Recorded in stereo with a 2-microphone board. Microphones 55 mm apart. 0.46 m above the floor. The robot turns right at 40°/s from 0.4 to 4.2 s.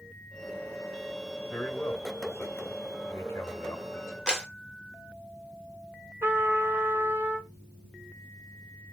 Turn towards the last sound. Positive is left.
turn(degrees=-50)  # may be behind; listen again after turning